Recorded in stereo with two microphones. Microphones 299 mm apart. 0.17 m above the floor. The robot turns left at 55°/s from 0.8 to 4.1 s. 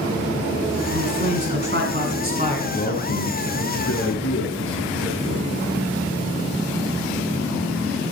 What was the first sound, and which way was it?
A man speaking, 55° right.